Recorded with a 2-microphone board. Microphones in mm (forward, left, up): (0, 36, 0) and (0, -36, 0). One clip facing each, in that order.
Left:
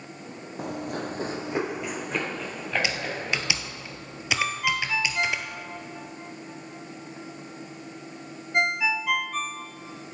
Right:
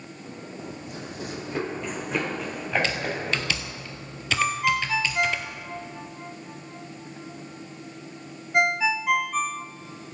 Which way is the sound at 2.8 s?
10° left (ahead or behind).